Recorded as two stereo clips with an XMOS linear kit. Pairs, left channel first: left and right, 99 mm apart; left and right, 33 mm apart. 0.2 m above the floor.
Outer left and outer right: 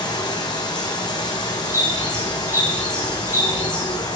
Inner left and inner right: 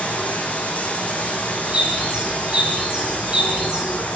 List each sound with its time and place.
0.0 s running water: 45° left (ahead or behind), 1.9 m
1.6 s a bird: 30° right (ahead or behind), 4.5 m